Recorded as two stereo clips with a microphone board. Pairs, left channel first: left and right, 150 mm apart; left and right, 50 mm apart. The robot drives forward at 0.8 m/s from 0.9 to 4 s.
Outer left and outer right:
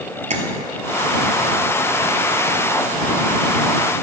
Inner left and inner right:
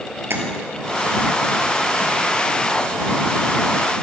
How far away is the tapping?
About 1.5 m.